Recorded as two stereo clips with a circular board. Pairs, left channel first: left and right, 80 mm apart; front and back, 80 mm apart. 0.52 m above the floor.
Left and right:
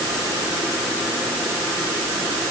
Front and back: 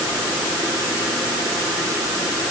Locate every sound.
Only background noise.